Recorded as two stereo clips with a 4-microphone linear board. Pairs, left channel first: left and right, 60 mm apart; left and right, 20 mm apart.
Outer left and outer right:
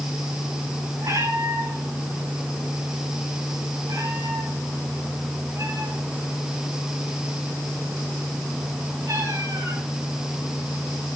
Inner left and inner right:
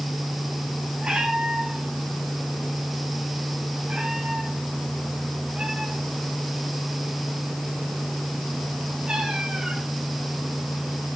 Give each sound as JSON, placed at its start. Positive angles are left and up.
{"t": 1.0, "sound": "a cat meowing", "side_deg": -80, "distance_m": 8.5}